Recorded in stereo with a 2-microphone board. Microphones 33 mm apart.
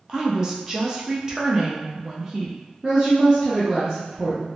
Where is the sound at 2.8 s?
25° right (ahead or behind), 0.6 m.